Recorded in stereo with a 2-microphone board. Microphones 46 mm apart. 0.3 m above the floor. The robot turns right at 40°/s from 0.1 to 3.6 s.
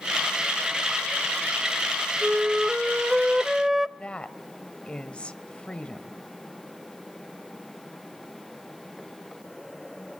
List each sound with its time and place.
2.2 s a flute: 20° right (ahead or behind), 0.6 m; by 3.9 s 10° right (ahead or behind), 0.6 m
4.0 s a woman speaking: 25° left (ahead or behind), 1.2 m